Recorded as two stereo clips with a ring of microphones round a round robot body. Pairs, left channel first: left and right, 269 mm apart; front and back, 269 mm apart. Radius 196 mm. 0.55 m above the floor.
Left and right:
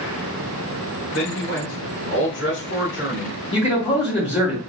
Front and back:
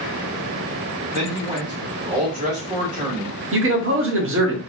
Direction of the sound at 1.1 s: 120° left.